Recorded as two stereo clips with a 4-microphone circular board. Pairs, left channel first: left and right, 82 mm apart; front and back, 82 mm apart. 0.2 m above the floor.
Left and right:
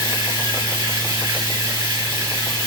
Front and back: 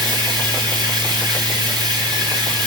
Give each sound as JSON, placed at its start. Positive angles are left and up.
{"t": 0.0, "sound": "running water", "azimuth_deg": -140, "distance_m": 9.0}